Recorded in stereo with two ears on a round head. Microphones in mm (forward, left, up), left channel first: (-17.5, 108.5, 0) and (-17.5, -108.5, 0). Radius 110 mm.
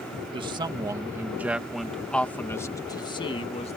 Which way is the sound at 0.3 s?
25° right (ahead or behind).